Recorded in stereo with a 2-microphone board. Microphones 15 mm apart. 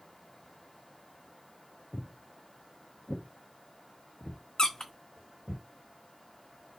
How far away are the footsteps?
About 0.6 m.